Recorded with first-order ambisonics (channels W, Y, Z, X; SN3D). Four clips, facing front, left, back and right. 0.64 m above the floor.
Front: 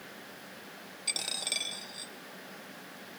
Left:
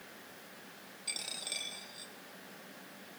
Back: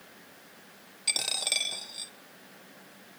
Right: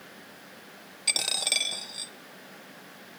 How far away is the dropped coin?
About 1.0 m.